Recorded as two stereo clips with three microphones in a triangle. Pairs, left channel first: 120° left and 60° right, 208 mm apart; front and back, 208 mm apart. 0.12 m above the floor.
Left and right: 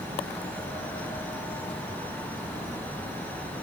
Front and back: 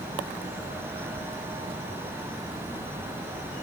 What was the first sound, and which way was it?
Only background noise.